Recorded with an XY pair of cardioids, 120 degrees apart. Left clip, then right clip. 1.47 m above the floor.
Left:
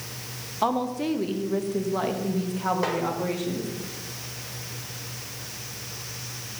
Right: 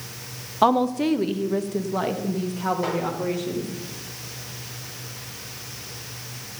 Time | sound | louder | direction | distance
0.6 | a woman speaking | right 6 dB | 40° right | 1.1 m
2.8 | a snare drum | even | 35° left | 6 m